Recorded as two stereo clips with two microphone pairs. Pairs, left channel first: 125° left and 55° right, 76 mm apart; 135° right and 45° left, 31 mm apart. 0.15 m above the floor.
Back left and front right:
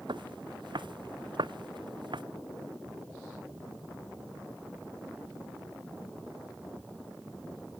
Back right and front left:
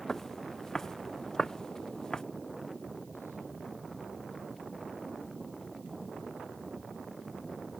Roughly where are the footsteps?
Ahead right.